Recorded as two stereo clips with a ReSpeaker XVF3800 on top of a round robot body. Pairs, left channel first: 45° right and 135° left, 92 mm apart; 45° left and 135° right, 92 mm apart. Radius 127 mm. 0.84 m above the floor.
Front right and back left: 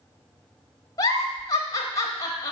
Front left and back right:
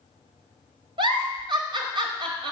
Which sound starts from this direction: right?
A giggle, at 1.0 s.